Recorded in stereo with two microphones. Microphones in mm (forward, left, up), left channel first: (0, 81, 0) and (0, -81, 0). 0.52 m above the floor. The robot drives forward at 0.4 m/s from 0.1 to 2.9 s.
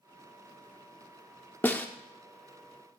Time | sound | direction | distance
1.6 | a snare drum | 10° left (ahead or behind) | 0.6 m